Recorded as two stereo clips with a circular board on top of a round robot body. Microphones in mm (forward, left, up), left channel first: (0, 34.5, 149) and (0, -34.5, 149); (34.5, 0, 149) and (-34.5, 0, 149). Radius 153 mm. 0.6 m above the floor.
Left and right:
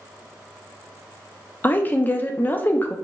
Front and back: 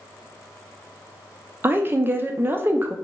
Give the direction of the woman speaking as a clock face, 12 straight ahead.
7 o'clock.